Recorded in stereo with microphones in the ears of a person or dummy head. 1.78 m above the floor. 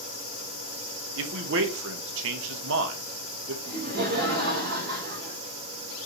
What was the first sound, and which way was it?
A man speaking, 75° right (ahead or behind).